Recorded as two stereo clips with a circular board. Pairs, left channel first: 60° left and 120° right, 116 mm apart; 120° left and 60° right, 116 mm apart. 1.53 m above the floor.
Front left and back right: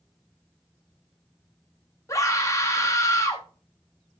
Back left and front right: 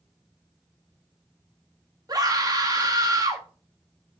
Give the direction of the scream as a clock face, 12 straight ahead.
12 o'clock.